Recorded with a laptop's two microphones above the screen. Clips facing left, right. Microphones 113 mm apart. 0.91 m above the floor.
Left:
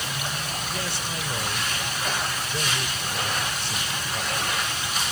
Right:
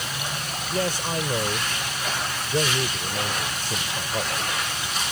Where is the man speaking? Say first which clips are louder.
Right 6 dB; 45° right (ahead or behind).